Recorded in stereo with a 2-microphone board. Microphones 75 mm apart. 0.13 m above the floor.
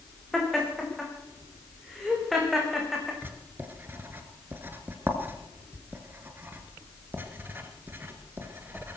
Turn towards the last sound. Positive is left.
turn(degrees=-25)  # may be behind; listen again after turning